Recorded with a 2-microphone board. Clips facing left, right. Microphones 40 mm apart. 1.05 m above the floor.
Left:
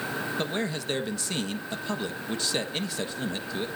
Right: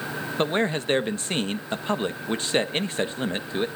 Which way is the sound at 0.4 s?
35° right (ahead or behind).